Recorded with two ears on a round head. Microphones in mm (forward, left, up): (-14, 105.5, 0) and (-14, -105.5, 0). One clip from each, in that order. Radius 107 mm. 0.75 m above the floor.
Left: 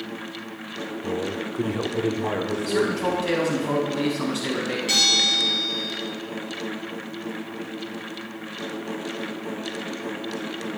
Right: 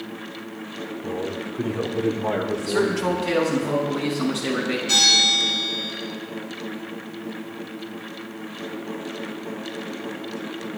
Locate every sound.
1.0 s a man speaking: 70° left (ahead or behind), 2.0 m; by 3.7 s 20° right (ahead or behind), 3.5 m
2.7 s a man speaking: 20° left (ahead or behind), 5.5 m
4.9 s a bell: 50° left (ahead or behind), 7.5 m